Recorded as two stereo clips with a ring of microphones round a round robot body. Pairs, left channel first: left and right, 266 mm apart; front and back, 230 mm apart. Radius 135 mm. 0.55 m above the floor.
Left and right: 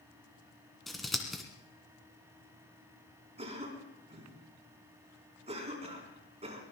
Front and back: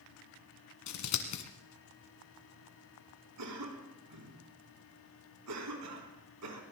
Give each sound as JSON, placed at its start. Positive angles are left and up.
{"t": 0.9, "sound": "scissors", "azimuth_deg": 0, "distance_m": 2.0}
{"t": 3.4, "sound": "a cough", "azimuth_deg": -160, "distance_m": 4.5}